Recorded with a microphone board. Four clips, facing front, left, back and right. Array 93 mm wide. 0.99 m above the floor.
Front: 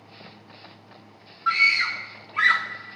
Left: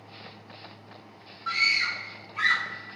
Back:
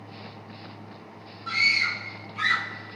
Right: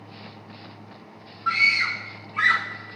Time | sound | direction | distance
1.5 | a scream | 25° right | 3 m